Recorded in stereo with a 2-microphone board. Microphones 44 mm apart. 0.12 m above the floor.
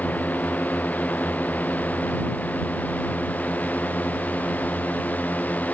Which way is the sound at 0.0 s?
45° left (ahead or behind).